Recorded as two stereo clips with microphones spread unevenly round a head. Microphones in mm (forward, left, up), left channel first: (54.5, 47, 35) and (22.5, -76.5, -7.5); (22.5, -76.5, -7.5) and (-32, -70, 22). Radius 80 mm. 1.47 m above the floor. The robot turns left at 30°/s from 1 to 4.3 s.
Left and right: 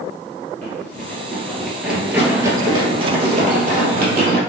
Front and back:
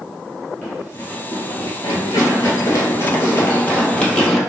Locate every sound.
0.6 s running footsteps: 95° left, 1.6 m; by 4.4 s 105° right, 2.5 m